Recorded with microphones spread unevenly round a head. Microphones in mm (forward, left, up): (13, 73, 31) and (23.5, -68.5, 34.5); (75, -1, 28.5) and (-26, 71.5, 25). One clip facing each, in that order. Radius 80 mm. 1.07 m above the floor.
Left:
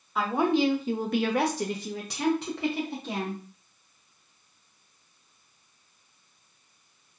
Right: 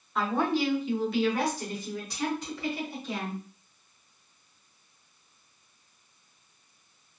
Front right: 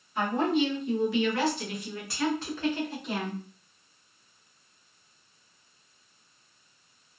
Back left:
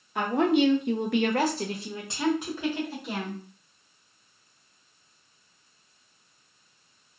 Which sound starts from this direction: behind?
A woman speaking, at 0.1 s.